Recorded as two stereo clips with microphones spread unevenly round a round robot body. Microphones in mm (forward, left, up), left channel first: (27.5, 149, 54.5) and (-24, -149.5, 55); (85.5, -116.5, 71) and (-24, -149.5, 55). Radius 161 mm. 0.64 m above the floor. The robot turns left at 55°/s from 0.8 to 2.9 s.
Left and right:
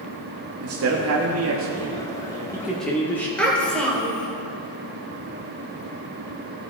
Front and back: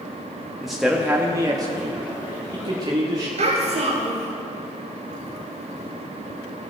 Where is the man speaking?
80° right, 1.0 m; by 3.3 s 165° left, 1.0 m.